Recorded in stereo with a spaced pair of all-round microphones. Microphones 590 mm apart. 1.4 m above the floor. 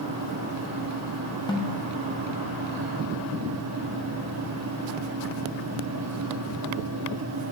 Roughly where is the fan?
Right.